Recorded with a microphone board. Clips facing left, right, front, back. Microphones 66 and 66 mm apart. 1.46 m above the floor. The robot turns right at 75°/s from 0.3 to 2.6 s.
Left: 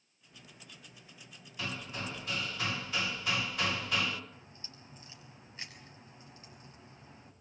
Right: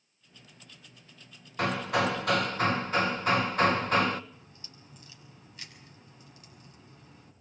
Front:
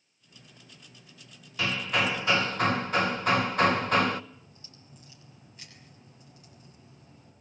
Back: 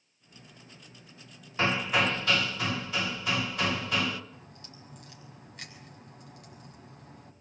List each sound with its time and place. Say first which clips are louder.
1.6 s hammering: right 13 dB, back 2 dB; 120° right, 1.1 m; by 4.2 s 45° right, 1.1 m
4.3 s a crack: even, back 4 dB; 150° left, 6.5 m